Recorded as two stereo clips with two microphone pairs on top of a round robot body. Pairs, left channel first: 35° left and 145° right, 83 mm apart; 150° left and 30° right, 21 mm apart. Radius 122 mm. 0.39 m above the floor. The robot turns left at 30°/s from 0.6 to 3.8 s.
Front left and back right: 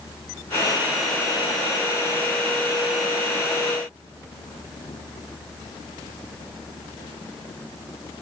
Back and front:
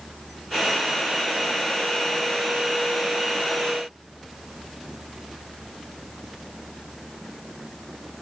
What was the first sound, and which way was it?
Only background noise.